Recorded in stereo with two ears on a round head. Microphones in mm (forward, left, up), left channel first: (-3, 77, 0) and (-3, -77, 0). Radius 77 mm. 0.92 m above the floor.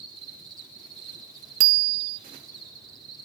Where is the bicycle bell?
50° right (ahead or behind), 2 m.